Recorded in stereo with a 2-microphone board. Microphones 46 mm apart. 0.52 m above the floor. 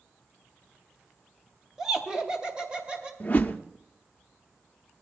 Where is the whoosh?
35° left (ahead or behind), 0.7 m.